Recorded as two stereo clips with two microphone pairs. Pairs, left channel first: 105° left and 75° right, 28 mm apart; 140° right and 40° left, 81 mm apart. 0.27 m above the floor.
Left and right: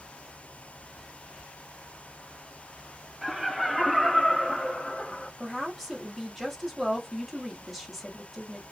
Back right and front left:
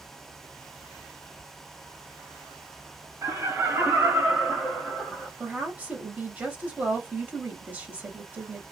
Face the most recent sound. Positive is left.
turn(degrees=25)